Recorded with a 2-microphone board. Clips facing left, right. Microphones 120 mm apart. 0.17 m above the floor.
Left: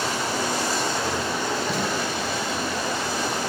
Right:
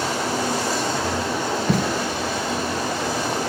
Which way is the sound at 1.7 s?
55° right (ahead or behind).